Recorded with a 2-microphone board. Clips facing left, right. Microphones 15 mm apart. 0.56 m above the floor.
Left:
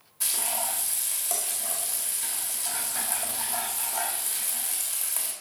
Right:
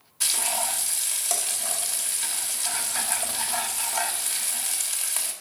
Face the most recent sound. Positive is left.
turn(degrees=-40)  # may be behind; listen again after turning